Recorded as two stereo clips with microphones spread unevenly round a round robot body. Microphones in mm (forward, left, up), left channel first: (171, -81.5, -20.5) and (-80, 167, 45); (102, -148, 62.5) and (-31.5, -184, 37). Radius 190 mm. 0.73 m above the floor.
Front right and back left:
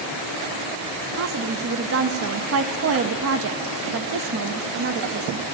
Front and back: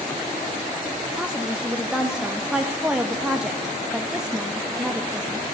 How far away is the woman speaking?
About 0.6 m.